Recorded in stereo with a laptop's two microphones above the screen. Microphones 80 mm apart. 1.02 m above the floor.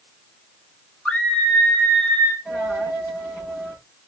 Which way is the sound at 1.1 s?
10° left (ahead or behind).